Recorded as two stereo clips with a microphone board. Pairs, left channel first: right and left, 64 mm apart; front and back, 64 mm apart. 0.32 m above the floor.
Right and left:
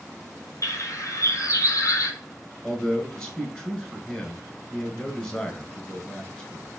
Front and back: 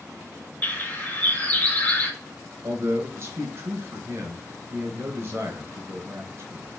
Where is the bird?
65° right, 1.3 m.